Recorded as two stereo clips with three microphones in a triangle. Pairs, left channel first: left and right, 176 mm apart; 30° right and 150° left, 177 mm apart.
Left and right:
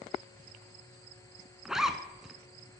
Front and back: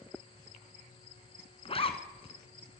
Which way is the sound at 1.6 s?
5° right.